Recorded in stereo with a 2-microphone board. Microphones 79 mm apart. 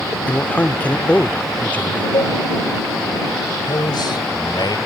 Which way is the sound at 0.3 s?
20° left (ahead or behind).